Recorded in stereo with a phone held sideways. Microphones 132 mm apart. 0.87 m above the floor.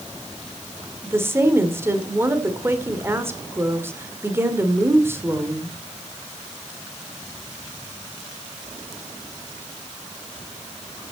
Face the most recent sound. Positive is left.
turn(degrees=-20)  # may be behind; listen again after turning